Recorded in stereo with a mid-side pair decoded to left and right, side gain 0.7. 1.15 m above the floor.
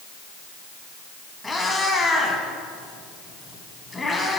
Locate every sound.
1.4 s a cat meowing: 15° left, 2.5 m